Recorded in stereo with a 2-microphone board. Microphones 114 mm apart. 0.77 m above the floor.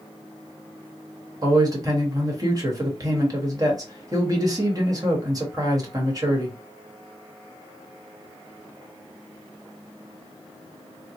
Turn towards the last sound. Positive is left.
turn(degrees=-35)  # may be behind; listen again after turning